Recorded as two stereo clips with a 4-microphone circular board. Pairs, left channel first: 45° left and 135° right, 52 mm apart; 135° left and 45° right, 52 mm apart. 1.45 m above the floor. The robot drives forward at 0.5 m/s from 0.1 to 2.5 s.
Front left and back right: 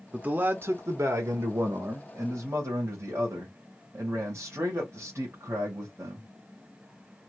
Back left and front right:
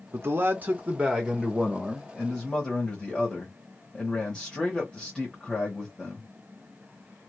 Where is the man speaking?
70° right, 0.7 m; by 6.3 s 150° right, 1.2 m.